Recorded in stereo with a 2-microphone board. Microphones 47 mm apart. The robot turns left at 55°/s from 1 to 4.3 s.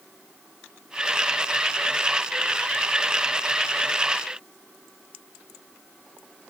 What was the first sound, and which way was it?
Only background noise.